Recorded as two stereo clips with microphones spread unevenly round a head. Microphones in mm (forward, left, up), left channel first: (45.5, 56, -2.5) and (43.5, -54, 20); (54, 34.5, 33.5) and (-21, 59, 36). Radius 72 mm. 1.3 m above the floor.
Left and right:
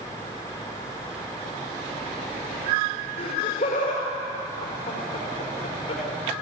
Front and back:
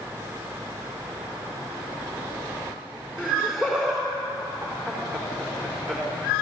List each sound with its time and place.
3.2 s laughter: 80° left, 5 m